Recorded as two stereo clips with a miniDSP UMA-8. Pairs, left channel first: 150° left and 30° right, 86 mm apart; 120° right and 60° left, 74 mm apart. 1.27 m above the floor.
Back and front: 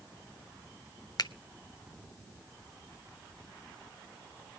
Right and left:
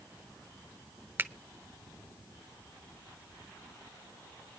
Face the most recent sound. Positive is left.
turn(degrees=120)